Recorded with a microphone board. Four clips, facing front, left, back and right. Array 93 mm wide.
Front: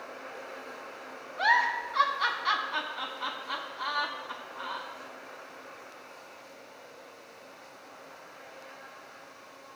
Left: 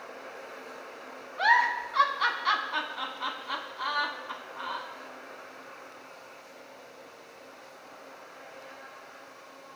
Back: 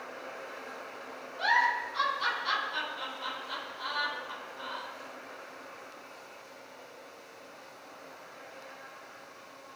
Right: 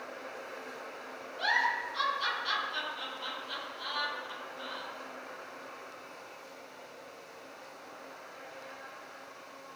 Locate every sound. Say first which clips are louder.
1.4 s a giggle: left 7 dB, front 1 dB; 60° left, 1.4 m